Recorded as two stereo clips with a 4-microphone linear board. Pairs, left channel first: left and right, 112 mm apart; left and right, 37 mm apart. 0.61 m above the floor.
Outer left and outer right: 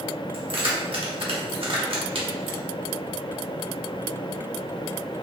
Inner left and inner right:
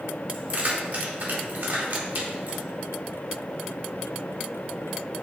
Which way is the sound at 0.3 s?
60° right (ahead or behind).